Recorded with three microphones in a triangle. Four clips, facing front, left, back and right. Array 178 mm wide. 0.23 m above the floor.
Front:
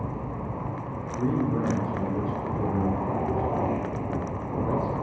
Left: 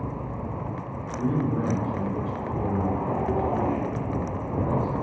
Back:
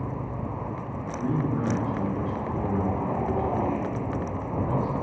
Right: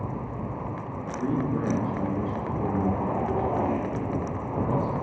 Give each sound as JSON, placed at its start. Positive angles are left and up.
{"t": 1.0, "sound": "a man speaking", "azimuth_deg": 25, "distance_m": 3.0}